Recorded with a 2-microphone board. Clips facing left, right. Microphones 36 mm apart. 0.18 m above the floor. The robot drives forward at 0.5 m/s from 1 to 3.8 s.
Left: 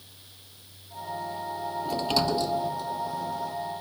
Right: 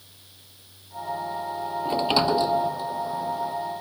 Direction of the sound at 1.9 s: 35° right (ahead or behind).